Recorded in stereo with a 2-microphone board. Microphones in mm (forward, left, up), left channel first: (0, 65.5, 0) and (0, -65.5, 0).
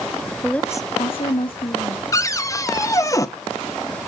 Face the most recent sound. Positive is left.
turn(degrees=25)  # may be behind; listen again after turning